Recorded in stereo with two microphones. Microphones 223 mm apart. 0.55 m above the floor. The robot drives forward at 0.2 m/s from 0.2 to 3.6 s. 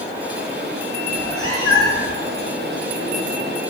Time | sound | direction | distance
1.1 | a cat meowing | 75° right (ahead or behind) | 1.2 m